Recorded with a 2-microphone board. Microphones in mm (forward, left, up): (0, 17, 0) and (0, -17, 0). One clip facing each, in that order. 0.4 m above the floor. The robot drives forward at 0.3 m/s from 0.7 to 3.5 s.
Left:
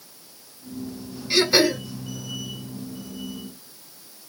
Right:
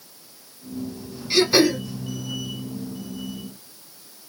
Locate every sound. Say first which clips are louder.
1.3 s throat clearing: right 1 dB; centre (ahead or behind), 1.5 m; by 1.8 s 5° left (ahead or behind), 1.4 m